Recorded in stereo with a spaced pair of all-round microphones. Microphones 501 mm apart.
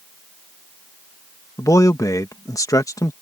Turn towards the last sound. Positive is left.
turn(degrees=5)  # may be behind; listen again after turning